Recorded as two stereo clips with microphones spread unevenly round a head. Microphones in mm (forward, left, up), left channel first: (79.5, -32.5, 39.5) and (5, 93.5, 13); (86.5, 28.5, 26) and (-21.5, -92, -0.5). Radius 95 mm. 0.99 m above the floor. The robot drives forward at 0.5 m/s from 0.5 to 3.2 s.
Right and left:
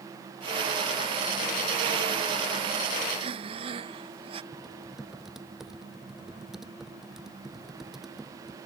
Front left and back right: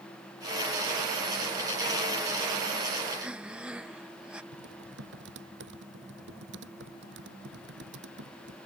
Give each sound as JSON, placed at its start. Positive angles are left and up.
{"t": 3.1, "sound": "breathing", "azimuth_deg": 150}
{"t": 4.5, "sound": "typing on a keyboard", "azimuth_deg": -150}